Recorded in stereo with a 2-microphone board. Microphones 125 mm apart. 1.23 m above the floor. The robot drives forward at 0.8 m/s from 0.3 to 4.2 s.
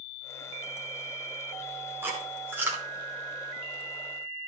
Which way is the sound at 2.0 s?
20° right (ahead or behind).